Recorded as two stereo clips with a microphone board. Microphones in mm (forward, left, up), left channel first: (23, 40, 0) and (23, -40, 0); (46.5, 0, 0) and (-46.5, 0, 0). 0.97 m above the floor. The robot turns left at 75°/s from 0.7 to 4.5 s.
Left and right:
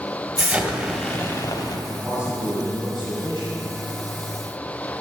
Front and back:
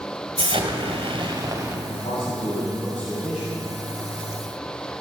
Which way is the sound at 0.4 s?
175° right.